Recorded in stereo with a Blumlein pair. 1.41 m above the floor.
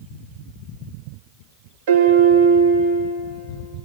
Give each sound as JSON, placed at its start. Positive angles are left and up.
{"t": 1.9, "sound": "a piano", "azimuth_deg": -50, "distance_m": 2.0}